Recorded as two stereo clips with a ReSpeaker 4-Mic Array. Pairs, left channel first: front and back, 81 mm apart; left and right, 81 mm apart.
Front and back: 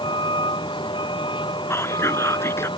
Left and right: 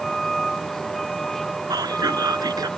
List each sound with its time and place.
0.0 s a vehicle: 5° left
1.7 s whispering: 55° right